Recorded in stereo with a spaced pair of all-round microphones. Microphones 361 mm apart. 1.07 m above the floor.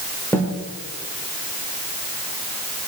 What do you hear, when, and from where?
0.3 s a snare drum: 5° left (ahead or behind), 3.5 m